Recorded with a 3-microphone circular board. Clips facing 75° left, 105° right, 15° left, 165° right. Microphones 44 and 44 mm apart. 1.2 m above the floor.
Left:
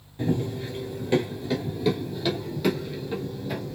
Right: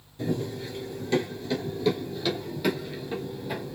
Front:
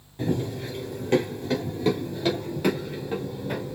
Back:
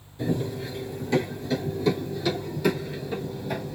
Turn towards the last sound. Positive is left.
turn(degrees=-30)